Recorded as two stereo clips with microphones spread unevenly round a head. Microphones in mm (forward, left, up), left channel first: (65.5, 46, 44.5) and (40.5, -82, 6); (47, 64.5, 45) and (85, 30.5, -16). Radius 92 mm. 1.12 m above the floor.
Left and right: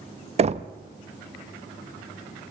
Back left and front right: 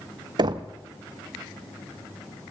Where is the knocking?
55° right, 0.8 m.